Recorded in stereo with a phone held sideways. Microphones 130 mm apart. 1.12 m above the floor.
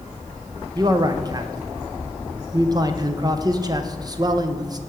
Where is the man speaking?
30° right (ahead or behind), 0.8 m.